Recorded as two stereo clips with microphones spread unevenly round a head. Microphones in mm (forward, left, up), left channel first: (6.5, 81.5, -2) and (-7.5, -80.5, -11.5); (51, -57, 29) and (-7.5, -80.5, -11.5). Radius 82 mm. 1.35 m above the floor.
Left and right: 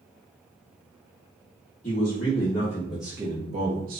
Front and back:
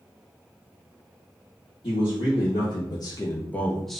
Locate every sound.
1.8 s a man speaking: 40° left, 0.9 m; by 4.0 s 95° right, 0.7 m